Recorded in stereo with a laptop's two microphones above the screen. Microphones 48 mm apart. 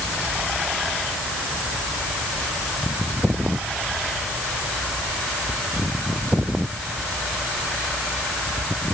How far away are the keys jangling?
No keys jangling in this recording.